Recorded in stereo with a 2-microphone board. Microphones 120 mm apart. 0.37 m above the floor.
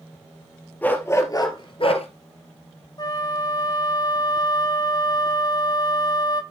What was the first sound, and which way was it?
A dog barking, 15° left (ahead or behind).